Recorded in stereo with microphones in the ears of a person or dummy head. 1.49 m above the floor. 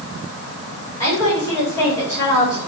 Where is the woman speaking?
20° left (ahead or behind), 4 m.